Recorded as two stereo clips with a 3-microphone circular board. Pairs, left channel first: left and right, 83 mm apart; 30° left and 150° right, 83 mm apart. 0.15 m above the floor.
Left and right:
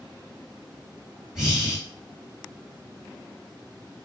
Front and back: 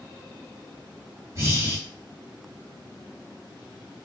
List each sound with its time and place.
1.4 s breathing: 175° right, 2 m